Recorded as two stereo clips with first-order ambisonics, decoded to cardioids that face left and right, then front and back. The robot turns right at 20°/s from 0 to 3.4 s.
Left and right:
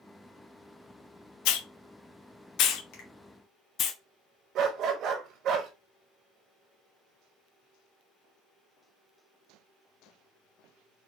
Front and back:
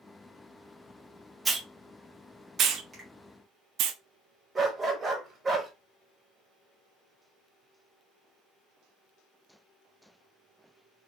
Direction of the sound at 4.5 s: 115° right.